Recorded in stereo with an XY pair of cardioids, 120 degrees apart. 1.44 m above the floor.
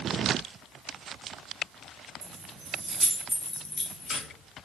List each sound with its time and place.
2.2 s keys jangling: 70° right, 1.2 m; by 4.3 s 45° left, 1.4 m